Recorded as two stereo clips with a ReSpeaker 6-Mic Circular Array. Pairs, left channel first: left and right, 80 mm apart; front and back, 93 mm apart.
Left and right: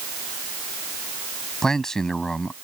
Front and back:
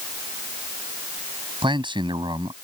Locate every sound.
1.6 s a man speaking: 175° left